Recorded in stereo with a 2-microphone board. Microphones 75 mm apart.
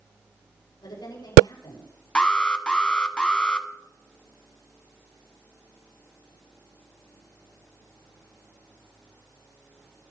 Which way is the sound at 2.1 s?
15° left (ahead or behind).